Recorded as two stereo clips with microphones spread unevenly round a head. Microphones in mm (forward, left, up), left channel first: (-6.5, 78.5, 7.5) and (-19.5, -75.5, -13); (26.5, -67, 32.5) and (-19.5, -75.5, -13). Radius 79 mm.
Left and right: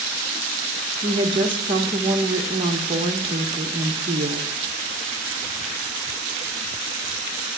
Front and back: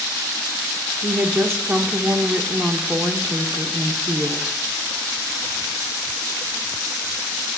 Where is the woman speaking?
155° right, 1.0 m.